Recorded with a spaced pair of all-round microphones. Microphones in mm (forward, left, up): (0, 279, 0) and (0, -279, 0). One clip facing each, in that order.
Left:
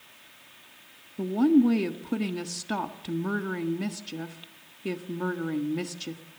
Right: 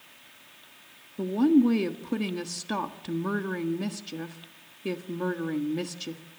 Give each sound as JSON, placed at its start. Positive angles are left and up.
{"t": 1.2, "sound": "a woman speaking", "side_deg": 5, "distance_m": 1.3}